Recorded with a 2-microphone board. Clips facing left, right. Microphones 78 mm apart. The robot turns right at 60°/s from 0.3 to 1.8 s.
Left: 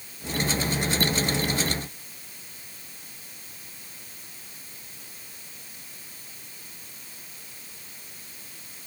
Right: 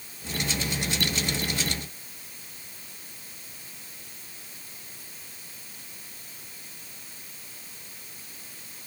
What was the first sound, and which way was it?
Only background noise.